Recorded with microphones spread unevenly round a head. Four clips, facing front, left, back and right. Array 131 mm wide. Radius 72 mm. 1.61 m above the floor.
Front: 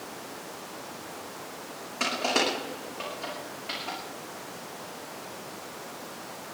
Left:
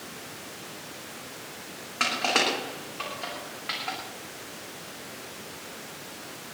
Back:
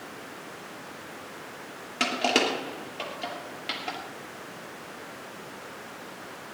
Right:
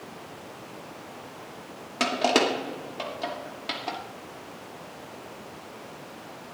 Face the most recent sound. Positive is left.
turn(degrees=-100)